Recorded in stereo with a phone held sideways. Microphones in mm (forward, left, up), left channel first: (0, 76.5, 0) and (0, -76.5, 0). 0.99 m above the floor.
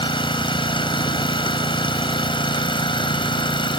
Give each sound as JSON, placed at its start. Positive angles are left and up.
{"t": 0.0, "sound": "an engine running", "side_deg": 30}